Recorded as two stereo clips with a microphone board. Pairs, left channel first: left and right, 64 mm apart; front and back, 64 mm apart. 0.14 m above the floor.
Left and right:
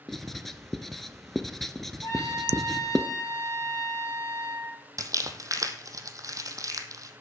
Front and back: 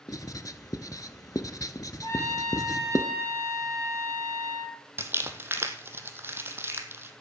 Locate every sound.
0.1 s writing: 5° left, 0.8 m
2.0 s a trumpet: 50° left, 4.5 m
5.0 s crumpling: 125° right, 1.1 m